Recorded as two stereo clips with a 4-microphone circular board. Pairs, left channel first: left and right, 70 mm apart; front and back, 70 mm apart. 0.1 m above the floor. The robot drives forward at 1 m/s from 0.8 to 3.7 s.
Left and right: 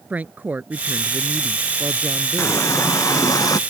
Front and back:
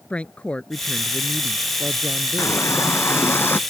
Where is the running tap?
45° left; by 3.6 s 60° left.